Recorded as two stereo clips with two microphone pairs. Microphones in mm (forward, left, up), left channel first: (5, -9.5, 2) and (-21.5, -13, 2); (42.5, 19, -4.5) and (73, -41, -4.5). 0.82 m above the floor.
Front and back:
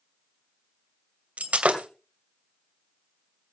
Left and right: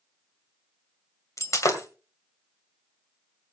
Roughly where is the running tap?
No running tap in this recording.